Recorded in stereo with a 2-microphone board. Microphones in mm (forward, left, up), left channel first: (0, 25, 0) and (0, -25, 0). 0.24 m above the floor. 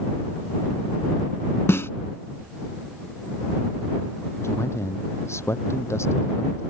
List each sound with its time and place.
1.7 s a snare drum: 70° left (ahead or behind)
4.4 s a man speaking: 80° left